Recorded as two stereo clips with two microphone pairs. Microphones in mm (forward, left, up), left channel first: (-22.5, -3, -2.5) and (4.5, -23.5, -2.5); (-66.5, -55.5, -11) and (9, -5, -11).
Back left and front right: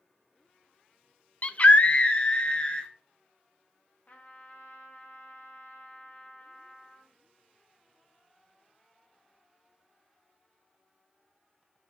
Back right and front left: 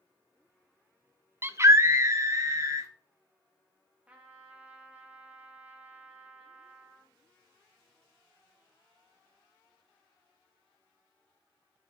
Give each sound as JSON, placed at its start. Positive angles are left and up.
{"t": 1.4, "sound": "a scream", "azimuth_deg": 100, "distance_m": 0.6}
{"t": 4.1, "sound": "a trumpet", "azimuth_deg": 110, "distance_m": 1.6}